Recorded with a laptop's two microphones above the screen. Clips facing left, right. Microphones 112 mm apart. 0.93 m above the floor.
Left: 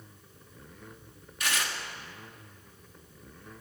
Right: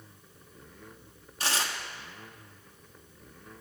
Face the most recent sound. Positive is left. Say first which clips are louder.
# right 1 dB
turn(degrees=-30)  # may be behind; listen again after turning